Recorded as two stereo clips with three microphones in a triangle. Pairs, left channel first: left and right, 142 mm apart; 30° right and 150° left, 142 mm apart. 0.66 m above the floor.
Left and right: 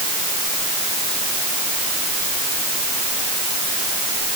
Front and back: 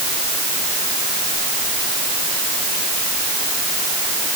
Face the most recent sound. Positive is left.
No sound to turn to.